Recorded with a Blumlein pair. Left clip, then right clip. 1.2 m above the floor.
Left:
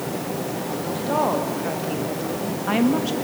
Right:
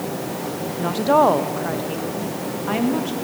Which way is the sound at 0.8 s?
35° right.